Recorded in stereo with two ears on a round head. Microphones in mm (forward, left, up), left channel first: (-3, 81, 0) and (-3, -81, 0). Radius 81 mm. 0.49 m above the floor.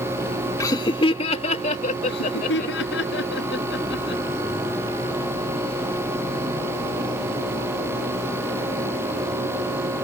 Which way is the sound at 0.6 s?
20° left (ahead or behind).